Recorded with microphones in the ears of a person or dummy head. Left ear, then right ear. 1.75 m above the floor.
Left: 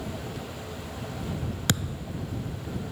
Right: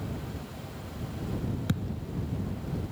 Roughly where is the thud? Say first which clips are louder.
Left 7 dB; left.